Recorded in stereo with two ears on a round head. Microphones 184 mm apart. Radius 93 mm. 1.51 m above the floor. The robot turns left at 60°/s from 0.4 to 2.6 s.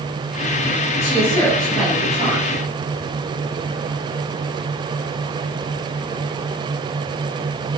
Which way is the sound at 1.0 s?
35° left.